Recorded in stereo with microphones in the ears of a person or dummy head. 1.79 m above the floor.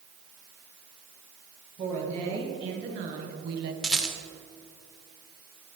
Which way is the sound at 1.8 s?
35° right (ahead or behind).